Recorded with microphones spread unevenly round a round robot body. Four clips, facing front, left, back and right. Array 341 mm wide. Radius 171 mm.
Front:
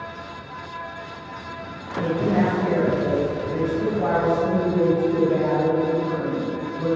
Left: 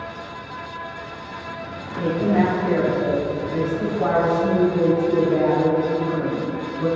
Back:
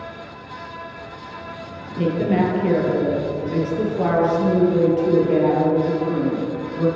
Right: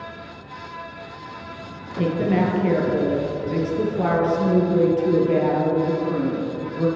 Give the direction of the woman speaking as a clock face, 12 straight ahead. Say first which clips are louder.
Left 1 dB, back 2 dB; 4 o'clock.